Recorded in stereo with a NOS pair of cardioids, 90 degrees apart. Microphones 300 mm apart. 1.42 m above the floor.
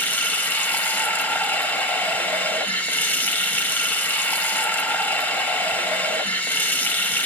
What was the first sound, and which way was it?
Running water, 5° left.